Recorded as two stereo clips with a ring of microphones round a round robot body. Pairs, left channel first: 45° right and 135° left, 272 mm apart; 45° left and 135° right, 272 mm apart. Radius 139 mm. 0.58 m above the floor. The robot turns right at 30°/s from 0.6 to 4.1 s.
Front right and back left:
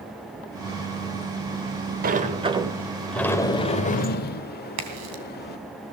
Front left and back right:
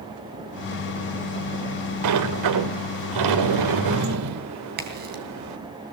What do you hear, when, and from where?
2.0 s a sliding door: 165° right, 1.2 m; by 5.6 s 105° right, 1.2 m
4.8 s a crack: 170° left, 3 m